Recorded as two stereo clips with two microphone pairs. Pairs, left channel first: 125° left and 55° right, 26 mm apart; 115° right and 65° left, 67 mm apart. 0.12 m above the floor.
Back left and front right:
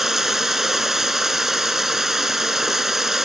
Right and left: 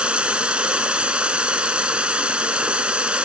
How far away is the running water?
About 0.9 m.